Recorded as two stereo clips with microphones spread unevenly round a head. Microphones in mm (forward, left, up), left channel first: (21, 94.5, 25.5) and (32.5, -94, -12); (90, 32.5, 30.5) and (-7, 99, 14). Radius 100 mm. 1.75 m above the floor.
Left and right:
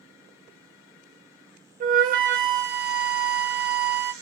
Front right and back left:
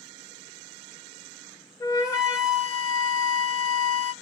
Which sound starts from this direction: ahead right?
A flute, at 1.8 s.